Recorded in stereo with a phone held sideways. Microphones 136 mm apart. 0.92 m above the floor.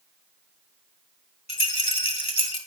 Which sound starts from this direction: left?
A rattle, at 1.5 s.